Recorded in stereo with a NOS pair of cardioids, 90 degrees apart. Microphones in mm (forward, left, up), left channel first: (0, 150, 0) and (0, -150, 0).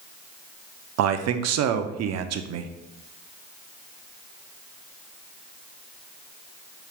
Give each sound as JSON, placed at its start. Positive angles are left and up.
{"t": 1.0, "sound": "a man speaking", "azimuth_deg": -60, "distance_m": 0.6}